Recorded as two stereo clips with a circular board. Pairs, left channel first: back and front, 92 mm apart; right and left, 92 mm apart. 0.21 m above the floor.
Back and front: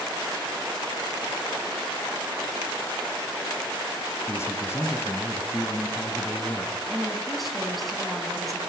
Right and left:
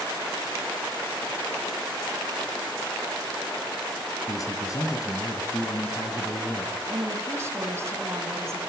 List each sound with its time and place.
4.3 s a man speaking: 125° right, 1.7 m
6.9 s a woman speaking: 90° left, 1.7 m